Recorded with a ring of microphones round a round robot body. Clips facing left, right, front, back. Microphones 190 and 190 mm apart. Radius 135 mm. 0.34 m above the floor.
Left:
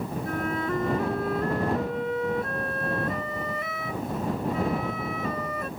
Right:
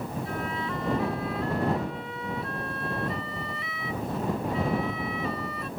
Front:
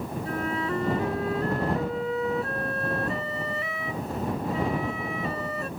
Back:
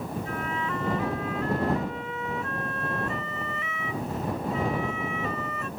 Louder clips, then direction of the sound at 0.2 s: Left 4 dB, front 3 dB; 50° left.